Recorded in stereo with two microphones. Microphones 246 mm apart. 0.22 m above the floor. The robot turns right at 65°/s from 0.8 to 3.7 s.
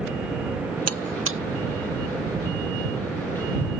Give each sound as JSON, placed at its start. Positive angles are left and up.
{"t": 0.9, "sound": "a buzzer", "side_deg": -80}